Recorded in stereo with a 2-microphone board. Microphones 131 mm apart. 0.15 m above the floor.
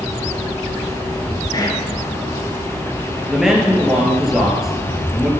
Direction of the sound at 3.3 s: 5° right (ahead or behind).